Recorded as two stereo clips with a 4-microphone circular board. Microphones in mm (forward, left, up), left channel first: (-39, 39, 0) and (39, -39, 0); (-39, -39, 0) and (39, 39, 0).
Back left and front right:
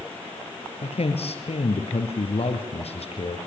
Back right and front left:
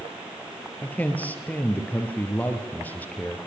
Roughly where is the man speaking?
Behind left.